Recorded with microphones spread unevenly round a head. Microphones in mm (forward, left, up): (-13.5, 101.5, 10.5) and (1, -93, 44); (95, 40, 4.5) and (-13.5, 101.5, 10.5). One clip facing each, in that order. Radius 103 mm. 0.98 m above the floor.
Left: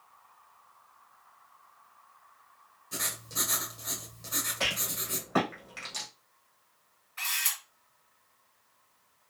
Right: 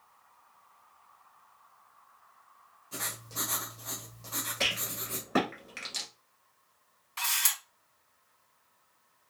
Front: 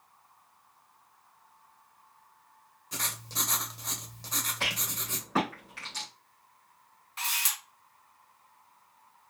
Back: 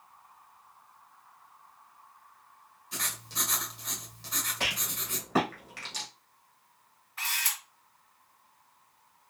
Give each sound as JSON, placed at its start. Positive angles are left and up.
{"t": 2.9, "sound": "writing", "azimuth_deg": 15, "distance_m": 1.3}
{"t": 4.6, "sound": "a rattle", "azimuth_deg": -145, "distance_m": 1.9}
{"t": 7.2, "sound": "a camera shutter", "azimuth_deg": -80, "distance_m": 2.5}